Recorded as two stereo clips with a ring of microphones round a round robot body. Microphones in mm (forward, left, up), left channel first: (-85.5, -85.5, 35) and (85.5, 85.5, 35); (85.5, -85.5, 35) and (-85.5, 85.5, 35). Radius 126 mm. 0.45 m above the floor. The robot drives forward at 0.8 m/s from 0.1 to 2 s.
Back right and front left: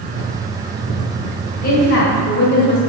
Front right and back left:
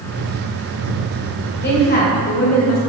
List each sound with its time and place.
1.6 s a woman speaking: 85° right, 2.5 m; by 2.8 s 95° right, 2.5 m